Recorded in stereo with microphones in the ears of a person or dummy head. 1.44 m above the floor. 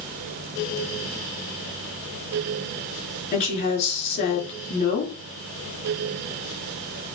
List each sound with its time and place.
3.3 s a woman speaking: 45° left (ahead or behind), 4 m